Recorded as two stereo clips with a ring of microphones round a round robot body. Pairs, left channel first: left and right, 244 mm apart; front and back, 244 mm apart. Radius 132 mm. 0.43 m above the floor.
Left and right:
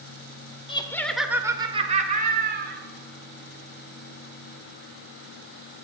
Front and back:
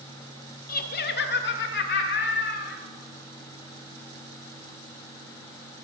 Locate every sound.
0.7 s laughter: 30° left, 1.6 m; by 2.8 s 50° right, 3 m